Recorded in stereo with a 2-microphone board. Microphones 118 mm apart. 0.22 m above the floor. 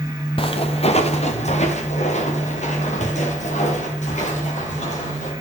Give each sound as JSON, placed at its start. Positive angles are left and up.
{"t": 0.4, "sound": "footsteps", "side_deg": 50, "distance_m": 1.5}